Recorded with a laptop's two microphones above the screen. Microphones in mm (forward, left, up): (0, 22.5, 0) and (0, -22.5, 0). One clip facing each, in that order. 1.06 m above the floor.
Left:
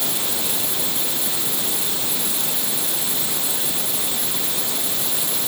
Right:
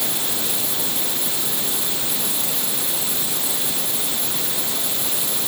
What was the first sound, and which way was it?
Only background noise.